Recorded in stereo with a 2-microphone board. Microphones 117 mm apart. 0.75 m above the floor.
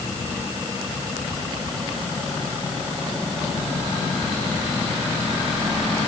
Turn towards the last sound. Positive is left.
No sound to turn to.